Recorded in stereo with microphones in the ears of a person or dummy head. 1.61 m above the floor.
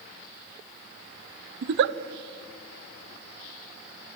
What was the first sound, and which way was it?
A giggle, 60° right (ahead or behind).